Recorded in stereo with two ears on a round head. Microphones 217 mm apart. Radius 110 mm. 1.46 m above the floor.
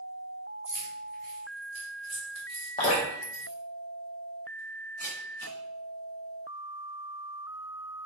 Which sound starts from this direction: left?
Dripping, at 2.8 s.